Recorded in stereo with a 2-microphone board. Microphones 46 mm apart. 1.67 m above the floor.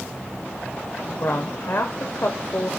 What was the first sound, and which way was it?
A woman speaking, 55° left (ahead or behind).